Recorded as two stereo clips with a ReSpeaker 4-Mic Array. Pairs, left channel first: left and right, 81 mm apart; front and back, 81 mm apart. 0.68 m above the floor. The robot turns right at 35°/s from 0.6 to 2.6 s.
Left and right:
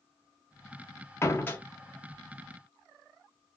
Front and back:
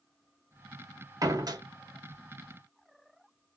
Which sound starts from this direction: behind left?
A door slam, at 1.2 s.